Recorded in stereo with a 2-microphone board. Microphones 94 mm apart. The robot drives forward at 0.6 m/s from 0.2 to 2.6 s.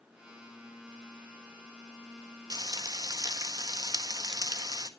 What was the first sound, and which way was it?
Frying, 45° right (ahead or behind).